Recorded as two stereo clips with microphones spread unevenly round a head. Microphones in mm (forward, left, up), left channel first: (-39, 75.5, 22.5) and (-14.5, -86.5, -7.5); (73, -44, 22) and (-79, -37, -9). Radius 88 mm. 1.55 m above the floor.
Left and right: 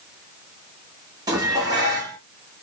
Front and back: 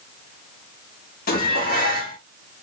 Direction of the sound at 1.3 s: 10° right.